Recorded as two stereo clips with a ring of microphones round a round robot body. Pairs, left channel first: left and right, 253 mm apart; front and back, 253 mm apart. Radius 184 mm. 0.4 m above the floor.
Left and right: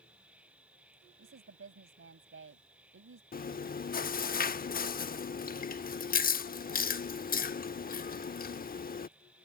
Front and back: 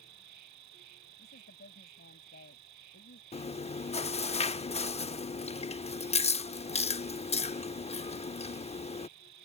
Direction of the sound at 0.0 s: 175° right.